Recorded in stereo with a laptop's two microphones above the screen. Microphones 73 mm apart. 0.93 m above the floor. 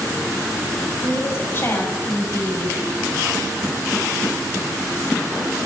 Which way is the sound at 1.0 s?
35° left (ahead or behind).